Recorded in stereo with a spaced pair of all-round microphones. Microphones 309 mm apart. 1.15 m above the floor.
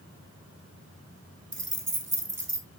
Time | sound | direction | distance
1.5 | keys jangling | 40° right (ahead or behind) | 0.5 m